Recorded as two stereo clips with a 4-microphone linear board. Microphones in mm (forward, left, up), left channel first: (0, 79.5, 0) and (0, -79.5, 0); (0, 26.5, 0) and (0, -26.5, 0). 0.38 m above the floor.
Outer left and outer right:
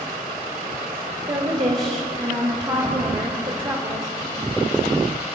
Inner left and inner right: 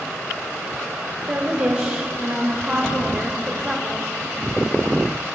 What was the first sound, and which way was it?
A woman speaking, 30° right (ahead or behind).